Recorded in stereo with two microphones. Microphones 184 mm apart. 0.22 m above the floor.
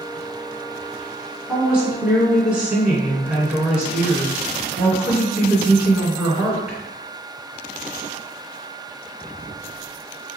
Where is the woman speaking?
5° right (ahead or behind), 2.0 m.